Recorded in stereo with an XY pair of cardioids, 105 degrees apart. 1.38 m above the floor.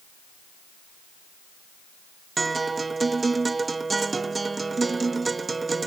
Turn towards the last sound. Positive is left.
turn(degrees=-25)